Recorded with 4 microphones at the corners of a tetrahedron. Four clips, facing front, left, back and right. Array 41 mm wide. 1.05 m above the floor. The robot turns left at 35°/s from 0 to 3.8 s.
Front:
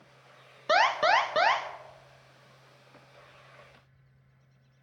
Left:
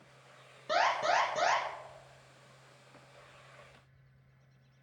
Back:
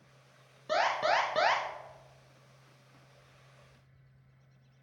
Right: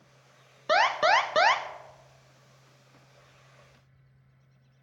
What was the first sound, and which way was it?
An alarm, 45° right.